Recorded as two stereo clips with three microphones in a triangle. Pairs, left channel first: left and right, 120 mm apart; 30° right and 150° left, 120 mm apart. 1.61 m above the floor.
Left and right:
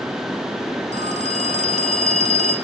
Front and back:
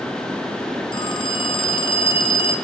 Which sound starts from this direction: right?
A phone ringing, at 0.9 s.